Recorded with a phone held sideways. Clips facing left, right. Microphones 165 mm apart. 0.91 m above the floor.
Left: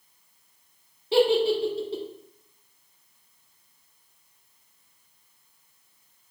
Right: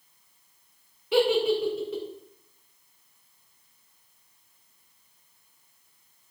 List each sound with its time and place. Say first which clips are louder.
1.1 s a giggle: left 2 dB; 30° left (ahead or behind), 1.6 m